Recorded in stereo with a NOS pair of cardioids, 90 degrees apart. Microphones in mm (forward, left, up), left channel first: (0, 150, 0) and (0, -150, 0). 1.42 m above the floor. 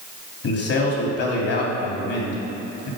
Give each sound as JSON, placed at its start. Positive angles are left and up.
{"t": 0.4, "sound": "a man speaking", "azimuth_deg": 50, "distance_m": 3.0}